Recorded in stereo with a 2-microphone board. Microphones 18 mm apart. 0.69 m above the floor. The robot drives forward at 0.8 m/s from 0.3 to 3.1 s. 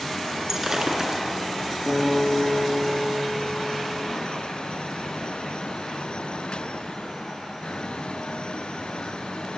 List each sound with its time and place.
0.5 s breaking glass: 25° right (ahead or behind), 3.5 m; by 1.2 s 35° right (ahead or behind), 3 m
1.9 s a guitar: 20° right (ahead or behind), 9 m